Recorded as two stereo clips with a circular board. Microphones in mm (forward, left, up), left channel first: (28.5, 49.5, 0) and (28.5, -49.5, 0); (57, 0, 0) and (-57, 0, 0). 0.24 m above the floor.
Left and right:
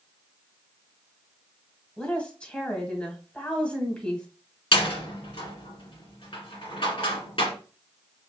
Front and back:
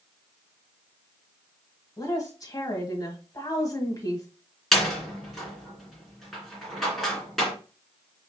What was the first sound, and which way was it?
A woman speaking, 20° left.